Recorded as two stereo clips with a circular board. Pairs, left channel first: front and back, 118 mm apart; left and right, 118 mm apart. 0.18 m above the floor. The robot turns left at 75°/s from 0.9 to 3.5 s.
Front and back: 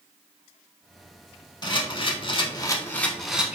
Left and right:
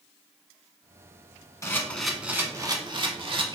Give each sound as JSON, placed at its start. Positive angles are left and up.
{"t": 1.6, "sound": "a camera shutter", "azimuth_deg": 35, "distance_m": 0.6}